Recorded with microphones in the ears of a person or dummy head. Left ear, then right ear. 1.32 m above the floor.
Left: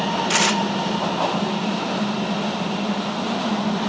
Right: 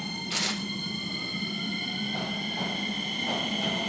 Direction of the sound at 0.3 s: 55° left (ahead or behind).